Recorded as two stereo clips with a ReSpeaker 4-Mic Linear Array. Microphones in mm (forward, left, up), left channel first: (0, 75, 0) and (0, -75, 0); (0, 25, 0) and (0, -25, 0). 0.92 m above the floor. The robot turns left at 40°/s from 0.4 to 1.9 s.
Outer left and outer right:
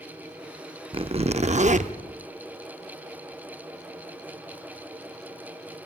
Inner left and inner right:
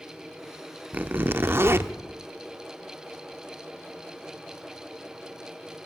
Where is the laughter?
No laughter in this recording.